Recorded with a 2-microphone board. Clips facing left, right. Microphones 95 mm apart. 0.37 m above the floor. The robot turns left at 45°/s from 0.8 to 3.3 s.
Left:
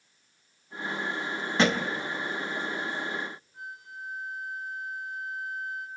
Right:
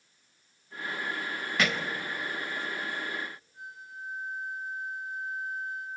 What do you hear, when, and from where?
1.6 s a thud: 30° left (ahead or behind), 0.8 m; by 1.9 s 40° left (ahead or behind), 0.8 m
3.5 s a flute: 70° left (ahead or behind), 3.5 m